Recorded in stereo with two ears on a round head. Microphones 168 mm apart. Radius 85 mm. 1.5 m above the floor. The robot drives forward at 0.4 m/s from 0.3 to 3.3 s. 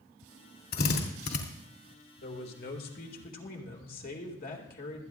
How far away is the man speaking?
About 2.0 m.